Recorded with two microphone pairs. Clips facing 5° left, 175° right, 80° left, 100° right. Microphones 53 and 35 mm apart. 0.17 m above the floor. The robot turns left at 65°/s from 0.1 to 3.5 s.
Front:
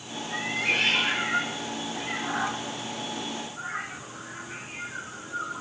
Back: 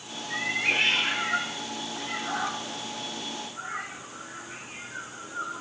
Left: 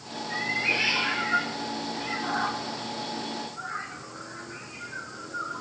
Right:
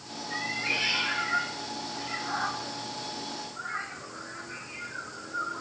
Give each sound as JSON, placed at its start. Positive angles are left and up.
{"t": 0.3, "sound": "a cat meowing", "azimuth_deg": 145, "distance_m": 1.1}